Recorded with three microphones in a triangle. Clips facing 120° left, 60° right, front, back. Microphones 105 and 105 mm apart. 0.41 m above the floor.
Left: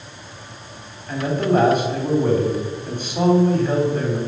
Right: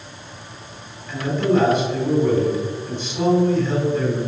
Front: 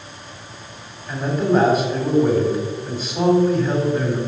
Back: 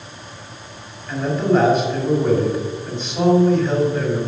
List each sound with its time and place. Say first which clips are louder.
1.1 s a man speaking: even, back 1 dB; 85° left, 2.5 m